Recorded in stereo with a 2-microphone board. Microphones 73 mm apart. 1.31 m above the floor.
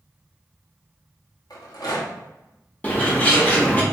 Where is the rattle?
65° left (ahead or behind), 1.1 m.